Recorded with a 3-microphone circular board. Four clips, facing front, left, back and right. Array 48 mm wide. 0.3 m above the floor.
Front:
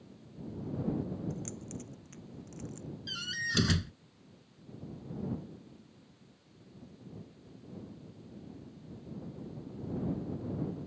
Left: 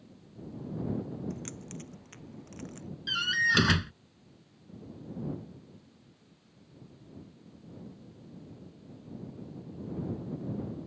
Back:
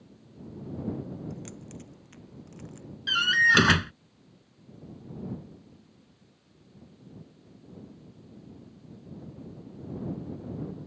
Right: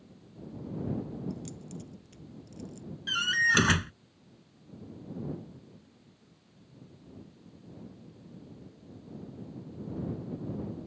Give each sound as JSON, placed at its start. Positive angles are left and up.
{"t": 1.3, "sound": "keys jangling", "azimuth_deg": 100}
{"t": 3.1, "sound": "a door slam", "azimuth_deg": -170}